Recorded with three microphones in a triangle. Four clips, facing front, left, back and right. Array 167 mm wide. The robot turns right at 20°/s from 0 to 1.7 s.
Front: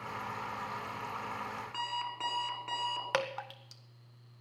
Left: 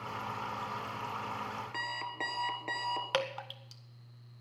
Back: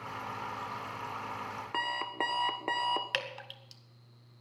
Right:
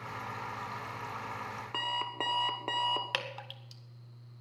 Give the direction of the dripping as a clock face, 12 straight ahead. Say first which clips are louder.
Left 5 dB, front 5 dB; 11 o'clock.